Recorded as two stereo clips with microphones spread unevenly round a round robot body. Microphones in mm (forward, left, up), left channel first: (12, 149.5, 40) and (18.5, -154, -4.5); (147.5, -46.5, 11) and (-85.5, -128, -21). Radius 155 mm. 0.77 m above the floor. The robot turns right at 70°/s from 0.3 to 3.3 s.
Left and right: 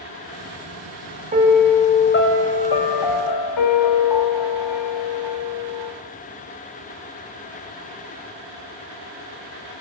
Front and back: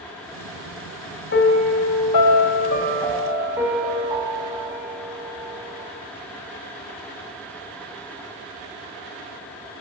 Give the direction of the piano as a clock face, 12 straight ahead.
1 o'clock.